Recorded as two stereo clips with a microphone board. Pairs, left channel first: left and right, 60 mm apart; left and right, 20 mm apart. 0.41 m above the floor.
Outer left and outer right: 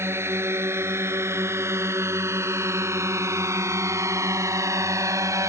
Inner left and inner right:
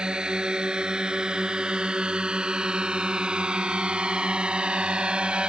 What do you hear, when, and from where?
0.0 s a drone: 45° right (ahead or behind); by 5.5 s 60° right (ahead or behind)